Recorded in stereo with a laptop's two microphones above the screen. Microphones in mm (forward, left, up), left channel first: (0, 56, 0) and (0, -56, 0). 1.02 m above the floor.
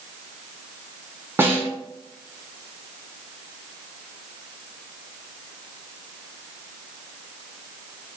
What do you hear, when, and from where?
1.4 s a snare drum: 20° right (ahead or behind), 1.8 m